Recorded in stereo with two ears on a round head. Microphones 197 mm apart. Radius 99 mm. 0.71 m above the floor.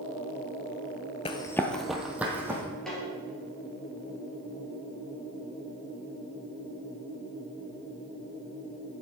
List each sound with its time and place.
1.2 s running footsteps: 25° left (ahead or behind), 0.7 m; by 2.6 s 10° right (ahead or behind), 2 m
2.9 s a snare drum: 5° left (ahead or behind), 3.5 m